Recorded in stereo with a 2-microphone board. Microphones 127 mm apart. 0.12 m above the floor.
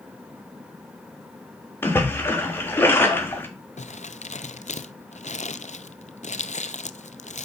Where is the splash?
15° left (ahead or behind), 3.5 m.